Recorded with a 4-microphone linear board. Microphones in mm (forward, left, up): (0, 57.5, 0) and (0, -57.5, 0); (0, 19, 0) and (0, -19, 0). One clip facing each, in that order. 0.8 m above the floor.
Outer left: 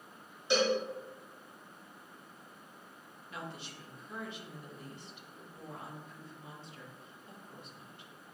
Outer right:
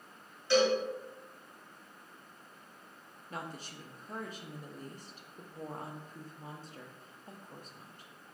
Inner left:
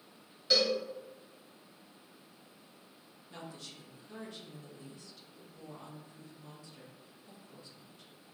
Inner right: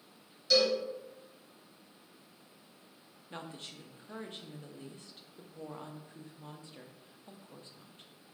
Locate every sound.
0.5 s a cowbell: 20° left (ahead or behind), 1.5 m
3.3 s a woman speaking: 40° right (ahead or behind), 0.5 m